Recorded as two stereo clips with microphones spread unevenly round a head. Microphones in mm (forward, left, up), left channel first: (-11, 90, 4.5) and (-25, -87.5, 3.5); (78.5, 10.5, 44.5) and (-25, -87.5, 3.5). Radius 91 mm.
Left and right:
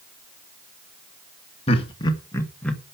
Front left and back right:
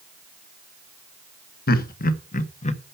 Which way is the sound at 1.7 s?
25° left.